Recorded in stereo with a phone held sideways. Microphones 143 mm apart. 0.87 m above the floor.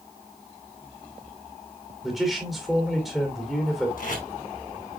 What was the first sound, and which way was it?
A man speaking, centre (ahead or behind).